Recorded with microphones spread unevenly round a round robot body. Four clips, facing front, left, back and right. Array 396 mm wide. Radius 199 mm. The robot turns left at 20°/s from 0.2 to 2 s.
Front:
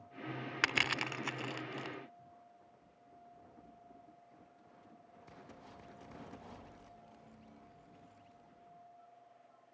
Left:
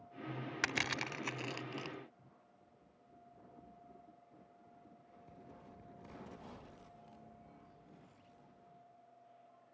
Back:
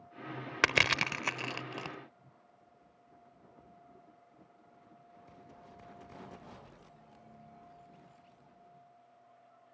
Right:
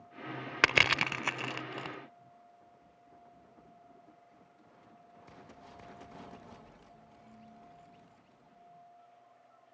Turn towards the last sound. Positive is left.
turn(degrees=-160)